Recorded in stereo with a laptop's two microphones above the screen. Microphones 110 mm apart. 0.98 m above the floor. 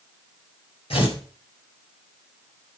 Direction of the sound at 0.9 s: 65° left (ahead or behind).